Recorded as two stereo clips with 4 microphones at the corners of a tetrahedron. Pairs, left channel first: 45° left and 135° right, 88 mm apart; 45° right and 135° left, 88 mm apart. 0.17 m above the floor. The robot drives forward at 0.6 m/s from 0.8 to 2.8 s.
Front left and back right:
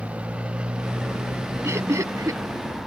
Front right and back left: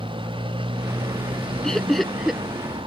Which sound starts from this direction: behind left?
A motorcycle, at 0.0 s.